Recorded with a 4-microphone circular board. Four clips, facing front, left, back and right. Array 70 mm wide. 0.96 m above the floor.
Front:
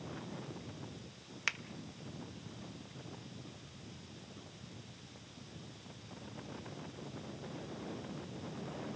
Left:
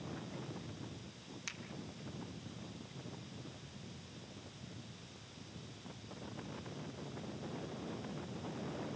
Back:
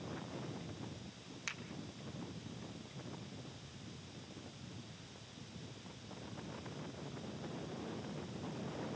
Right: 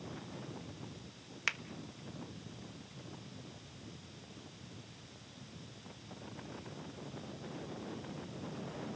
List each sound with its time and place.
1.5 s a finger snap: 55° right, 1.2 m